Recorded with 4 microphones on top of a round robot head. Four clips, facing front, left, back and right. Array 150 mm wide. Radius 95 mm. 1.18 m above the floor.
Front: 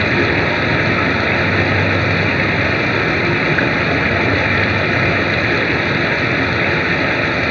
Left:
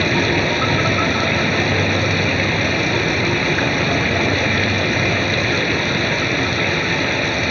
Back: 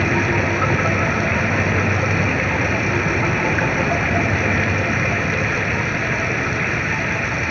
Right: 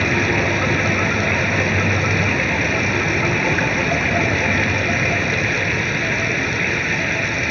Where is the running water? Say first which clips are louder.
Left 1 dB, front 3 dB; 15° left.